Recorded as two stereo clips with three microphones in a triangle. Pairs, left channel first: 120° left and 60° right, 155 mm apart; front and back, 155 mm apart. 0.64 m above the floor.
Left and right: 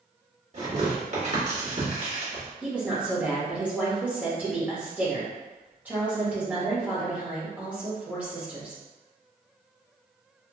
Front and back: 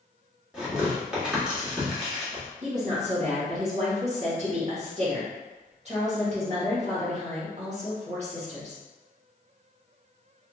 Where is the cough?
No cough in this recording.